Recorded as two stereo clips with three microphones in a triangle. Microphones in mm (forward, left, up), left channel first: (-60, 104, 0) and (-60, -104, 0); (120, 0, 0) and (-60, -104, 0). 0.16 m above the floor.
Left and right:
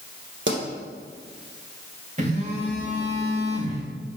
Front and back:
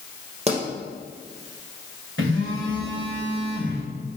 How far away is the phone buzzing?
About 3 m.